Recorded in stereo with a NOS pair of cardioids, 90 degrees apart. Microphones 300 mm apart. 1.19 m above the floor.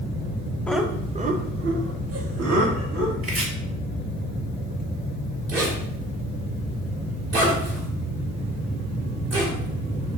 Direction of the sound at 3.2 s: 20° right.